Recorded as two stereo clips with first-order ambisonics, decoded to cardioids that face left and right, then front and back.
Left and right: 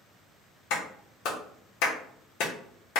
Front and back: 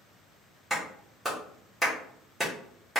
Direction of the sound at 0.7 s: 90° left.